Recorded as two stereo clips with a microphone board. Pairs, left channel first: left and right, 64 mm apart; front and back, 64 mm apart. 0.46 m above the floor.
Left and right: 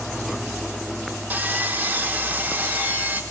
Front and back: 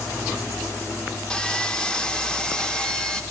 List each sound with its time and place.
1.3 s sawing: 65° right, 0.6 m